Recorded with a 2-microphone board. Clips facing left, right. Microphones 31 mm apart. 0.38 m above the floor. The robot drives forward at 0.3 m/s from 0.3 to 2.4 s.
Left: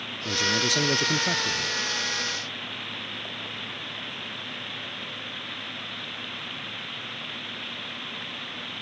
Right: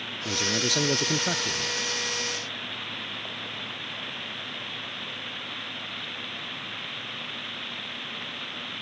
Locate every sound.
0.2 s a man speaking: 5° right (ahead or behind)